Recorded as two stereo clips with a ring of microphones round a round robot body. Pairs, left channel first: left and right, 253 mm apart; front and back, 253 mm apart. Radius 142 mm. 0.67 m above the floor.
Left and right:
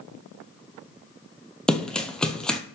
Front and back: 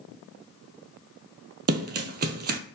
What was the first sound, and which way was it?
Running footsteps, 175° left.